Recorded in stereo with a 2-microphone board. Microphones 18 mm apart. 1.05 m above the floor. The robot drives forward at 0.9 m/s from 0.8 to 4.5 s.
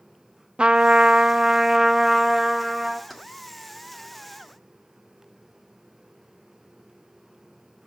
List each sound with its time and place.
0.6 s a trumpet: 65° right (ahead or behind), 0.5 m; by 3.0 s 15° right (ahead or behind), 1.9 m
3.1 s keys jangling: centre (ahead or behind), 1.5 m